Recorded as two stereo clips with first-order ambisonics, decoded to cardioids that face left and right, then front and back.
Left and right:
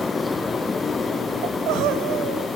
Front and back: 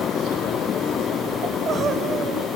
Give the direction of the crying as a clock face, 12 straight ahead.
4 o'clock.